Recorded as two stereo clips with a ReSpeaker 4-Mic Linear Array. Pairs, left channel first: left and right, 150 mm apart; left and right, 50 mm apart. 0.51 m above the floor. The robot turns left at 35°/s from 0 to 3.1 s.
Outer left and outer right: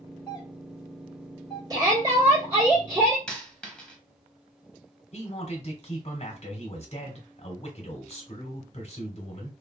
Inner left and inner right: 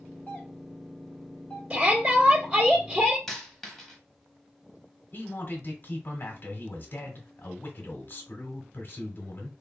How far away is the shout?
About 1.4 m.